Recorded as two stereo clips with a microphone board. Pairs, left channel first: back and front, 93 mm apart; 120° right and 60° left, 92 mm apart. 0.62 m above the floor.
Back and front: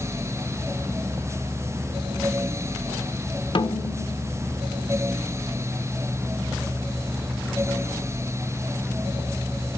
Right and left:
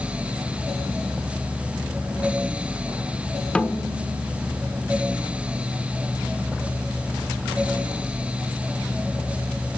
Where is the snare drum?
165° left, 1.4 m.